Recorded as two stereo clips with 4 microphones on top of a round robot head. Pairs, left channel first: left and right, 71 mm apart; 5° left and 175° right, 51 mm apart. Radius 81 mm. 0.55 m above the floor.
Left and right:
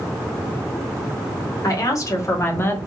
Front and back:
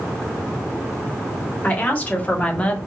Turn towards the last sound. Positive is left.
turn(degrees=50)